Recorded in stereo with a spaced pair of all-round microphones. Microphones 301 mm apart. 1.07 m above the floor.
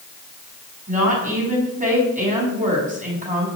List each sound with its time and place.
0.9 s a woman speaking: 25° right (ahead or behind), 8 m